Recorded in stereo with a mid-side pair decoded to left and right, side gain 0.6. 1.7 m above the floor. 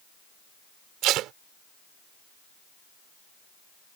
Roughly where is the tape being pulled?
Ahead right.